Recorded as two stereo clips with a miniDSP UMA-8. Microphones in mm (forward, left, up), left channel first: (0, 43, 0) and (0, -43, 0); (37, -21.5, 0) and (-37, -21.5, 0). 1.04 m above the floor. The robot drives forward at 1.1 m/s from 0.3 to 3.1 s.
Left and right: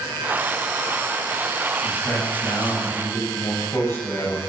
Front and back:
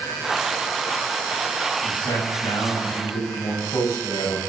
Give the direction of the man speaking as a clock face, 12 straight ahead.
11 o'clock.